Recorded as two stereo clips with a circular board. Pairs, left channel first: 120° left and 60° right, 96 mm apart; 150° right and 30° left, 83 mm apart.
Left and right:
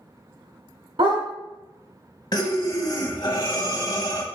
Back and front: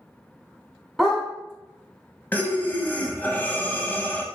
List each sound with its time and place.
1.0 s a dog barking: 60° right, 1.1 m
2.3 s breathing: 150° left, 0.6 m